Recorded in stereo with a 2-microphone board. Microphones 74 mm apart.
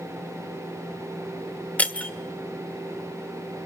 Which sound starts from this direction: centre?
Breaking glass, at 1.8 s.